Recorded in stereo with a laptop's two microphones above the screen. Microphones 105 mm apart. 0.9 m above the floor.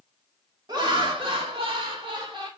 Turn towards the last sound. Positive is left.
turn(degrees=-45)  # may be behind; listen again after turning